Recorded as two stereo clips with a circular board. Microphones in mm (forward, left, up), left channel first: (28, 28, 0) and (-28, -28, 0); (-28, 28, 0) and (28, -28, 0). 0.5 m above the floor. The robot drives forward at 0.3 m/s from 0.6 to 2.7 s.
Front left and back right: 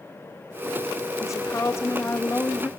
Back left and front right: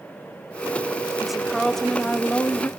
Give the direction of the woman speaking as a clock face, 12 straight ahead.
11 o'clock.